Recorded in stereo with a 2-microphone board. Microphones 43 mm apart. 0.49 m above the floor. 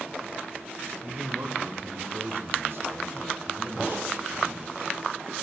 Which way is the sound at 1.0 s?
65° right (ahead or behind).